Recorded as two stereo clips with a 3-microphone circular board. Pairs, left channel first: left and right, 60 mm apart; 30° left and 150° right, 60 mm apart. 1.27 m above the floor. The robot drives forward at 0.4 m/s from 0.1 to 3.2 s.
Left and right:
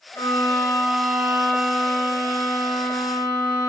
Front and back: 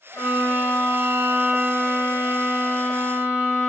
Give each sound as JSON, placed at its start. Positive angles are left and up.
{"t": 0.1, "sound": "a violin", "azimuth_deg": 70, "distance_m": 4.5}